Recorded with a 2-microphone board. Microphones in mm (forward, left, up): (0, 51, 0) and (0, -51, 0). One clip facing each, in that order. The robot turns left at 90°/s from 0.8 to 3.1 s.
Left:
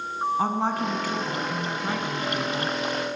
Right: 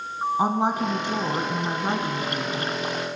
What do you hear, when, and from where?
0.4 s a woman speaking: 35° right, 1.6 m; by 2.8 s 150° left, 1.6 m